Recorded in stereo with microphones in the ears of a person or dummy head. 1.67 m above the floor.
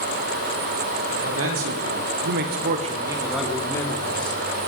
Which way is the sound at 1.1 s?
80° right.